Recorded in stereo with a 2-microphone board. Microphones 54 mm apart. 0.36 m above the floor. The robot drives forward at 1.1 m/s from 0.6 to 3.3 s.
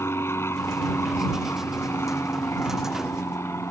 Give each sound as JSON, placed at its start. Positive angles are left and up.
{"t": 0.0, "sound": "an aircraft", "side_deg": 55}